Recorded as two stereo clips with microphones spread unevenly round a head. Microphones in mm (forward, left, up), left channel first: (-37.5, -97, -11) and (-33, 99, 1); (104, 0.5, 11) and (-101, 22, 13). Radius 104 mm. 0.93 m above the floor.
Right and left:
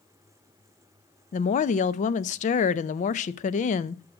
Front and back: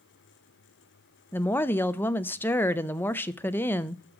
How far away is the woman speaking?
About 0.5 m.